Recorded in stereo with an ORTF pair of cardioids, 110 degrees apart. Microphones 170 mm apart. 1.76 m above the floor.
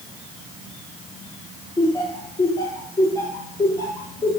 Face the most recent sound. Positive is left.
turn(degrees=20)